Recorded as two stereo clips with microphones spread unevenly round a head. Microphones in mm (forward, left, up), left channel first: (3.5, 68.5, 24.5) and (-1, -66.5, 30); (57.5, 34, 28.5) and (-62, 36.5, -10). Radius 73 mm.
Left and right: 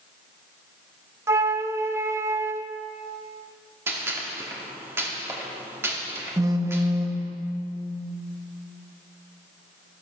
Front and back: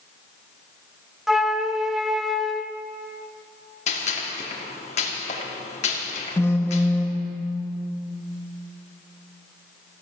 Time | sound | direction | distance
1.3 | a flute | 50° right | 0.5 m
3.9 | a gunshot | 20° right | 2 m
6.4 | a phone buzzing | 40° right | 1.1 m